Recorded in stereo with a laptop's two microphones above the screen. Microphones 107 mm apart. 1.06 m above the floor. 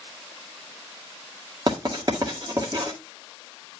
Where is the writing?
40° right (ahead or behind), 1.8 m.